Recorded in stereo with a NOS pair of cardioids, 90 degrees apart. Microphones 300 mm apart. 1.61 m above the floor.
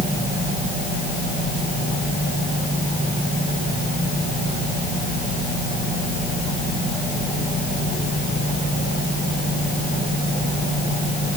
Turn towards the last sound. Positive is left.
No sound to turn to.